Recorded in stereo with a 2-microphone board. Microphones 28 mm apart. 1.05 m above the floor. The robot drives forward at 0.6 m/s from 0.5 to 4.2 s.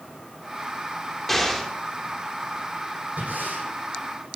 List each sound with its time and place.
1.3 s an explosion: 5° left (ahead or behind), 2.5 m
3.2 s breathing: 85° right, 9 m